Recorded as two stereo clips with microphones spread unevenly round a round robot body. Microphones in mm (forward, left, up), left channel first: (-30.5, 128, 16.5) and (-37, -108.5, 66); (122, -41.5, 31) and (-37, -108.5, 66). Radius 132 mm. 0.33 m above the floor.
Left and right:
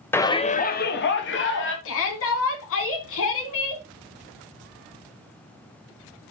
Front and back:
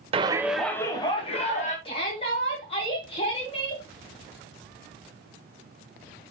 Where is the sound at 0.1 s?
145° left, 1.0 m; by 1.8 s 65° left, 2 m.